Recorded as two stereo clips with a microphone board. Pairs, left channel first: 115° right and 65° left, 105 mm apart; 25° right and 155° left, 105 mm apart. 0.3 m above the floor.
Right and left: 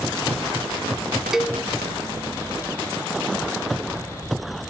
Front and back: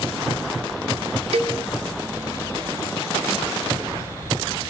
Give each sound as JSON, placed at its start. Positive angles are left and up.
{"t": 1.3, "sound": "a cowbell", "azimuth_deg": 155, "distance_m": 0.9}